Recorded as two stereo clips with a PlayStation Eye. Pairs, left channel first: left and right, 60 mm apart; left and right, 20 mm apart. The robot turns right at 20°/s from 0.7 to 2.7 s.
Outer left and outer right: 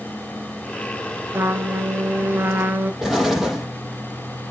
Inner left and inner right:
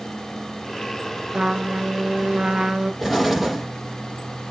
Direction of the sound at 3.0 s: 5° right (ahead or behind).